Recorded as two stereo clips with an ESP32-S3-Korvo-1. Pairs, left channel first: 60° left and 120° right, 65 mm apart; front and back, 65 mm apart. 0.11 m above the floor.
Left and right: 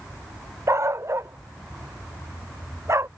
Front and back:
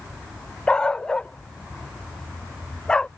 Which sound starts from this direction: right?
A dog barking, at 0.7 s.